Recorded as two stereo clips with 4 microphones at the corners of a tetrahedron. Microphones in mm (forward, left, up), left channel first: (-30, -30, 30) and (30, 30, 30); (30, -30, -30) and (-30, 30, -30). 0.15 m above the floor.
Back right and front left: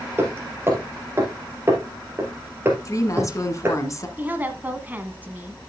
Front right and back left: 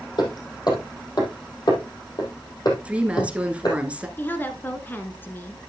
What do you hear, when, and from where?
0.2 s hammering: 15° right, 3 m
2.9 s a woman speaking: 155° right, 1.5 m
4.2 s a woman speaking: 5° right, 1.5 m